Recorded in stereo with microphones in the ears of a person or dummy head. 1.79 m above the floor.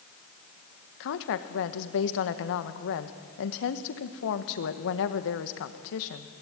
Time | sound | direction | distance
1.0 | a woman speaking | 70° left (ahead or behind) | 1.6 m